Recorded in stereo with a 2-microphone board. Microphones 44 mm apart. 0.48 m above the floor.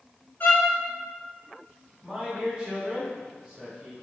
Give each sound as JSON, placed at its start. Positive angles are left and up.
{"t": 0.4, "sound": "a violin", "side_deg": 45, "distance_m": 1.7}
{"t": 2.0, "sound": "a man speaking", "side_deg": -25, "distance_m": 1.7}